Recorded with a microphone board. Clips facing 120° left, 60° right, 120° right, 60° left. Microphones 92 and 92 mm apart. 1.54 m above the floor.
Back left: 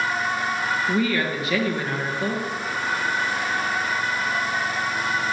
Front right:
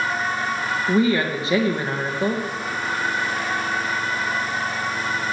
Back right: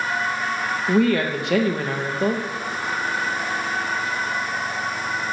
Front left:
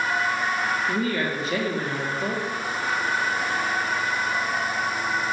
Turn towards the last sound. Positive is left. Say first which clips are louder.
# front right 7 dB, back right 6 dB
turn(degrees=-120)